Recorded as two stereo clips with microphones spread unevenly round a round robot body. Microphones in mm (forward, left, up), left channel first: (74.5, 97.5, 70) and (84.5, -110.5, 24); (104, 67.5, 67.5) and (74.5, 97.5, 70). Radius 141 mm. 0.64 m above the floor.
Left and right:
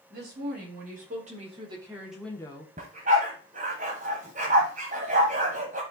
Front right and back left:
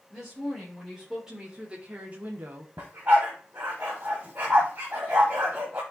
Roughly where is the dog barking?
Behind right.